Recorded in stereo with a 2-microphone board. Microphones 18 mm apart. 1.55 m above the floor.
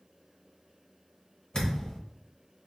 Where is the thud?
45° left (ahead or behind), 1.1 m.